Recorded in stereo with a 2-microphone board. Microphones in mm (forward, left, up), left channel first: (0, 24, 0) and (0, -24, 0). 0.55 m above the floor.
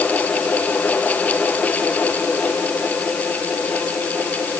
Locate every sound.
Only background noise.